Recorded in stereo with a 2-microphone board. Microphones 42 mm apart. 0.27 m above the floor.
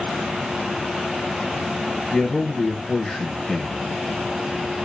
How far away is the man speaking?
About 1.0 m.